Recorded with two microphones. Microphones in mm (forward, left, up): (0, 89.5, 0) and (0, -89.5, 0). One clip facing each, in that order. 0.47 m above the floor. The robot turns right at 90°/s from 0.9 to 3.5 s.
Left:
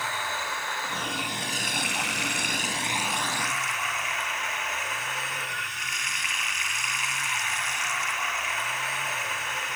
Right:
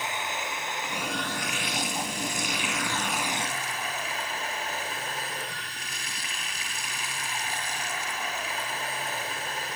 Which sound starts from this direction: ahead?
Running water, at 0.0 s.